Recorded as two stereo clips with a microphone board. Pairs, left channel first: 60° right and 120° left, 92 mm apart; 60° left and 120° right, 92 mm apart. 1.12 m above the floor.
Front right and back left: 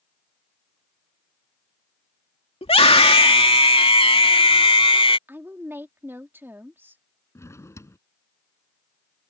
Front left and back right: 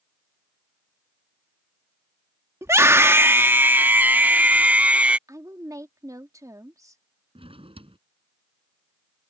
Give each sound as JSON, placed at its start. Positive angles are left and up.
{"t": 2.6, "sound": "a scream", "azimuth_deg": -60}
{"t": 5.3, "sound": "a woman speaking", "azimuth_deg": -175}
{"t": 7.3, "sound": "a drawer", "azimuth_deg": -120}